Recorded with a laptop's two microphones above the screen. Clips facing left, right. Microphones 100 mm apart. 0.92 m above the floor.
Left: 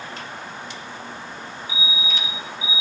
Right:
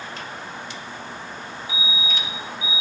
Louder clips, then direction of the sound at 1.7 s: Even; 65° right (ahead or behind).